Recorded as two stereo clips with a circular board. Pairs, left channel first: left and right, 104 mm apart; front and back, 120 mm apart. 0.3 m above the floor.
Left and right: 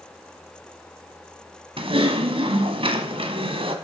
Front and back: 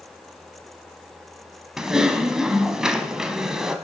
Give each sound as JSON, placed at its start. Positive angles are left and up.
{"t": 1.8, "sound": "typing on a keyboard", "azimuth_deg": -95, "distance_m": 1.4}